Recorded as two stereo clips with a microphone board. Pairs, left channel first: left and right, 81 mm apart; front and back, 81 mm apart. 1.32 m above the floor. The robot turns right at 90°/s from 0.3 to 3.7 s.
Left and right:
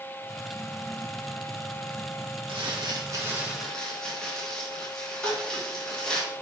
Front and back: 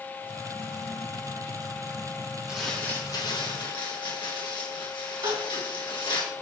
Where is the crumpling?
100° right, 2.0 m; by 6.2 s 10° left, 2.0 m.